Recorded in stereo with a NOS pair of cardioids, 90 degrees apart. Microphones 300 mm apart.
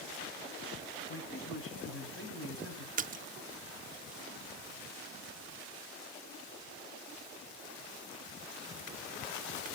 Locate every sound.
1.1 s a man speaking: 45° left, 8 m
3.0 s a splash: 30° right, 0.6 m